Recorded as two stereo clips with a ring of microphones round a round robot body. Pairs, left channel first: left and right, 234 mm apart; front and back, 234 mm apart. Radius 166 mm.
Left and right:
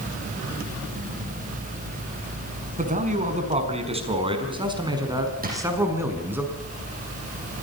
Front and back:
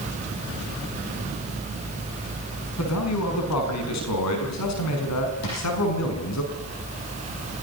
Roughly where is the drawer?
Ahead right.